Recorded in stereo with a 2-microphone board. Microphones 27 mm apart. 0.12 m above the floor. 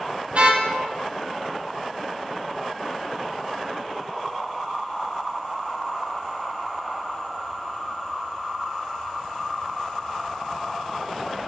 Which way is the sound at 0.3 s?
45° right (ahead or behind).